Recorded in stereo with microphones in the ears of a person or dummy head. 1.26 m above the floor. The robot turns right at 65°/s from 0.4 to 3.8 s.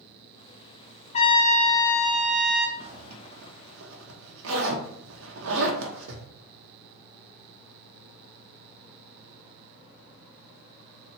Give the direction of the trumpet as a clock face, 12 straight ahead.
7 o'clock.